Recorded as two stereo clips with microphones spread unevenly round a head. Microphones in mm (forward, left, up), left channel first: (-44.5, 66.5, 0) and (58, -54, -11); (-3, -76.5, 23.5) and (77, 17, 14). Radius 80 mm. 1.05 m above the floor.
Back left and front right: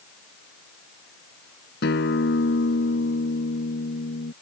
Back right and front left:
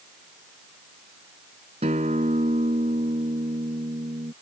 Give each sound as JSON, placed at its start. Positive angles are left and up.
{"t": 1.8, "sound": "a guitar", "azimuth_deg": 105}